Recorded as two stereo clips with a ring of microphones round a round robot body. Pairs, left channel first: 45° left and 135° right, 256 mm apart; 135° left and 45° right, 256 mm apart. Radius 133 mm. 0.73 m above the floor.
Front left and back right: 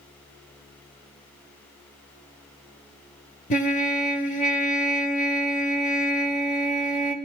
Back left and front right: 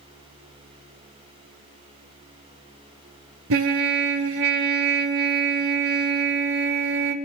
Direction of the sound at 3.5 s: 15° right.